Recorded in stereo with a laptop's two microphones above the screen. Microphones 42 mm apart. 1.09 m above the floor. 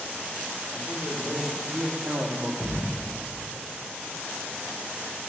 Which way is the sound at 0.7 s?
60° right (ahead or behind).